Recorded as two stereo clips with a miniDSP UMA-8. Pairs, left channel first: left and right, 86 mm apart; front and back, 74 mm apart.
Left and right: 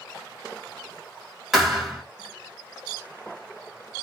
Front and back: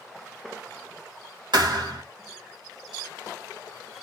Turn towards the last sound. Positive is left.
turn(degrees=-175)